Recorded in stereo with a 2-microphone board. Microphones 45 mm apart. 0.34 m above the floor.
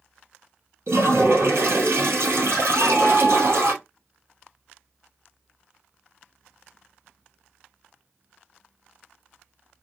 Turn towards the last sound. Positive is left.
turn(degrees=-85)